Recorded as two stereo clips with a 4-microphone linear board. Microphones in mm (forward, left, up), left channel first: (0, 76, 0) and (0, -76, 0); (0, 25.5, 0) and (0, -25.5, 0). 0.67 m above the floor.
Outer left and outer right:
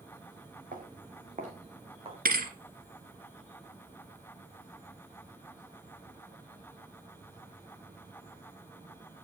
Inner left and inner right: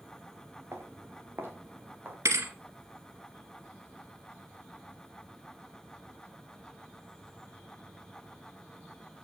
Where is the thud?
80° right, 2 m.